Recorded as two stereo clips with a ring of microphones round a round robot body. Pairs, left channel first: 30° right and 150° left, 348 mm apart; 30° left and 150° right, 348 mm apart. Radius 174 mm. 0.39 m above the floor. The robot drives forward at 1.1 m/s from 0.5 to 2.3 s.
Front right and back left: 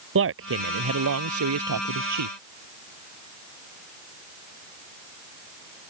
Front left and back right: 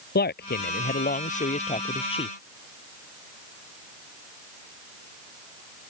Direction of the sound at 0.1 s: 95° left.